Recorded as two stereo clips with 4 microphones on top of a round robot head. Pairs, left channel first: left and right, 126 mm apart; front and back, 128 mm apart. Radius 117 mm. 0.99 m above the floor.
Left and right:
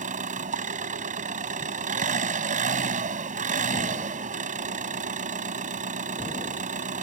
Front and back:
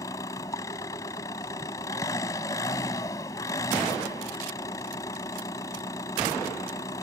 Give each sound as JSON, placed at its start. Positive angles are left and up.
{"t": 0.0, "sound": "an engine running", "azimuth_deg": -70}